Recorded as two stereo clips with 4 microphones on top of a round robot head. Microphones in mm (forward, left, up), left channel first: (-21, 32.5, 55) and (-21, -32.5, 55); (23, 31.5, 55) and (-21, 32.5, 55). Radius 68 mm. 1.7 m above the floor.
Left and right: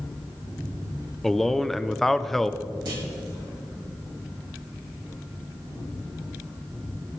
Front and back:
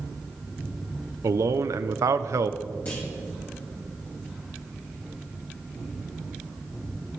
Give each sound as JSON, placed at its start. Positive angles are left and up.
{"t": 1.2, "sound": "a man speaking", "azimuth_deg": 175, "distance_m": 0.7}
{"t": 2.9, "sound": "a clunk", "azimuth_deg": -65, "distance_m": 3.0}